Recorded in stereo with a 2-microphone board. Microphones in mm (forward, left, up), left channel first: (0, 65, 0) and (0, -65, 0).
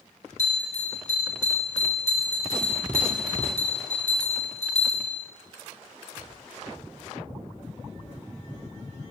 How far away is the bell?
About 1.2 m.